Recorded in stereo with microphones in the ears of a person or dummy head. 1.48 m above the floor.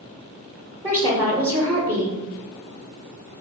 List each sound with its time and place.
0.8 s a woman speaking: 15° right (ahead or behind), 0.9 m